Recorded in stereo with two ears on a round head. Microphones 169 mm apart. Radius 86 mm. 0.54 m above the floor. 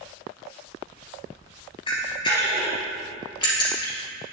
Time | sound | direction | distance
1.9 | a camera shutter | 25° left (ahead or behind) | 2 m